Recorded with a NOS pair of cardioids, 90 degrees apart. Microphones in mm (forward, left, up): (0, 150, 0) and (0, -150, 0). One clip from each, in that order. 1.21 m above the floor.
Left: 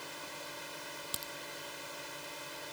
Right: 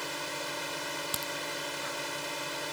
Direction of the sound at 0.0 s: 65° right.